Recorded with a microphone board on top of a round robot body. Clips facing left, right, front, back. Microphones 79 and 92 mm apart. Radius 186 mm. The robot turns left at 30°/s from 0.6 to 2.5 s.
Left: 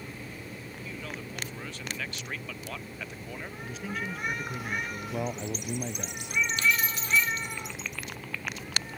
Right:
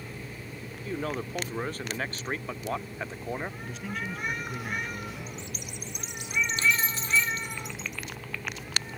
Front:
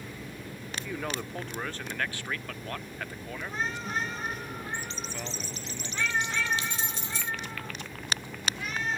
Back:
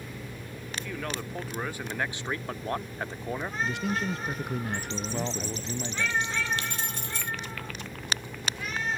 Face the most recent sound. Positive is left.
turn(degrees=-145)